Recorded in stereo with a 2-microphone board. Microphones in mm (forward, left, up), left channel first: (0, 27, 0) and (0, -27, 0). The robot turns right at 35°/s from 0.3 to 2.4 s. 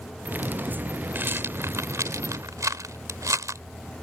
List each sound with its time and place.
1.1 s a rattle: 40° right (ahead or behind); by 3.6 s 80° right